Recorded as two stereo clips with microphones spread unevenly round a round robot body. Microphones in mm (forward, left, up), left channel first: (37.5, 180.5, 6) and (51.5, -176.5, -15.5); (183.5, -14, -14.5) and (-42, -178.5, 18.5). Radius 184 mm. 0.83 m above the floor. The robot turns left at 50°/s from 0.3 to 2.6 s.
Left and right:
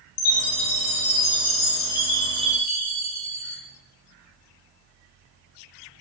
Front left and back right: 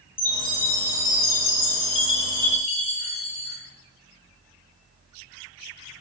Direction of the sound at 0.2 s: 110° left.